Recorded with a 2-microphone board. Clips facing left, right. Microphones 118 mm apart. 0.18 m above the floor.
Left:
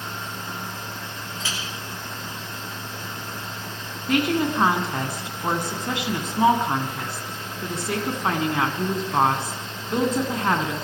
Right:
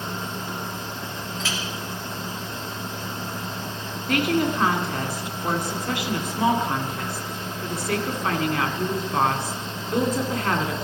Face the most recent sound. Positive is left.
turn(degrees=25)  # may be behind; listen again after turning